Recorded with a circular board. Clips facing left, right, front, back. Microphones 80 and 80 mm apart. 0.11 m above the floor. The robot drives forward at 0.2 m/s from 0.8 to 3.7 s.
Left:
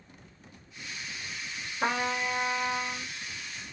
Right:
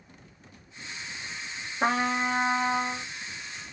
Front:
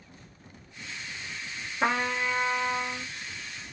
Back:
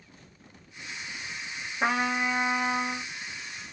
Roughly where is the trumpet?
Right.